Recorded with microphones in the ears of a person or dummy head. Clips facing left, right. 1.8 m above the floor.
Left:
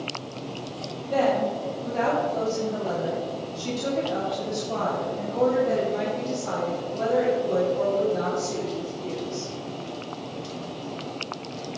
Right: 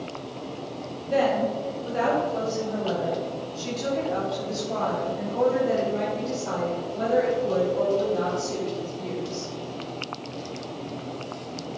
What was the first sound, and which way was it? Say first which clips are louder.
A woman speaking: even; 20° right (ahead or behind).